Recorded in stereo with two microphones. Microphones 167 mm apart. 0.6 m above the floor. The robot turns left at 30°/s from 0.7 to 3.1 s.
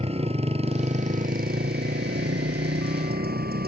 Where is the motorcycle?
40° right; by 3.7 s 110° right.